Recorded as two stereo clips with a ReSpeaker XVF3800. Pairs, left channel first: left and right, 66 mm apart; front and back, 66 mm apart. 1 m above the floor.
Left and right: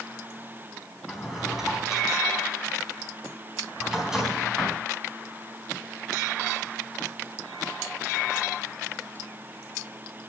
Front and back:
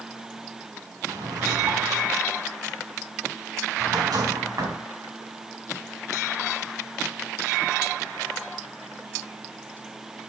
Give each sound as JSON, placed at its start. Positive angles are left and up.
{"t": 1.1, "sound": "a drawer", "azimuth_deg": -175, "distance_m": 4.0}